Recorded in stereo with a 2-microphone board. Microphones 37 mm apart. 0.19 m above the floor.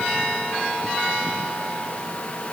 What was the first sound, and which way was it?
Only background noise.